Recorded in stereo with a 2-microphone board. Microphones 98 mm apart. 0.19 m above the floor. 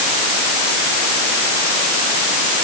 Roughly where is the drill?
I don't hear a drill.